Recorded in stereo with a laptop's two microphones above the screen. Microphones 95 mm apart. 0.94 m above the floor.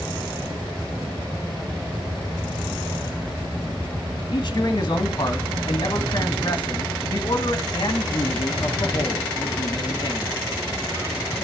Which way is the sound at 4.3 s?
45° left (ahead or behind).